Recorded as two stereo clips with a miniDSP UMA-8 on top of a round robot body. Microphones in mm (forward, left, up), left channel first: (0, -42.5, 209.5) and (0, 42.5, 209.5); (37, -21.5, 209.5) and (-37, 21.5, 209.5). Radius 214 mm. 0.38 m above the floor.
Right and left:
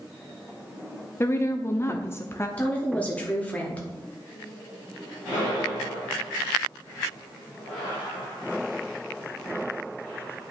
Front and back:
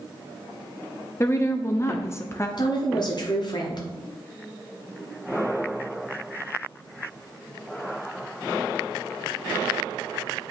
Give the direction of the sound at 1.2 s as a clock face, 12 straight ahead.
2 o'clock.